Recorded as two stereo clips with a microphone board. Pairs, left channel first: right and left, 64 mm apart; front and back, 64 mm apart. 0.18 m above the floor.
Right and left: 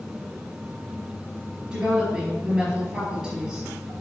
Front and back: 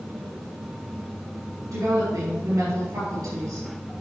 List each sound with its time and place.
1.7 s a woman speaking: 170° left, 4 m